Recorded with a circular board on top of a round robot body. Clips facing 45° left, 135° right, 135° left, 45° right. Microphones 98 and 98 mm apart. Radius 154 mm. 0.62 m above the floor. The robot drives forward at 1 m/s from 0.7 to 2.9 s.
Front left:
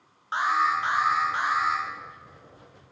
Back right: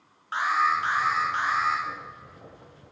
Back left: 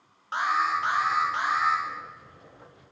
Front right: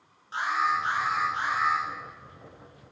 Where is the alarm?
115° left, 4.5 m; by 1.8 s 125° left, 5 m.